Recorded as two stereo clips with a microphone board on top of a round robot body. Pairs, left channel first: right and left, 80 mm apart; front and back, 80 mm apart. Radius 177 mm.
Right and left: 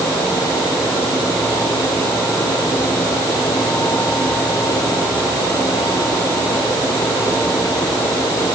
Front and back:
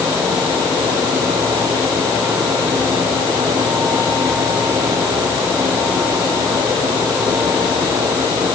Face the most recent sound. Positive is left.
No sound to turn to.